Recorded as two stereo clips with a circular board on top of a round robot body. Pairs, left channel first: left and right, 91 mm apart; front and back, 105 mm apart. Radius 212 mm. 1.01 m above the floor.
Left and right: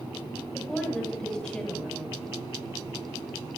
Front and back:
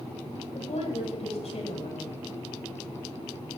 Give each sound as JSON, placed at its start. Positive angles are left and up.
{"t": 0.5, "sound": "a woman speaking", "azimuth_deg": 10, "distance_m": 8.0}